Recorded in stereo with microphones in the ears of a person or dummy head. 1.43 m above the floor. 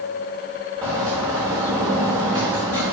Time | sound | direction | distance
0.8 | a bird | 15° right (ahead or behind) | 1.4 m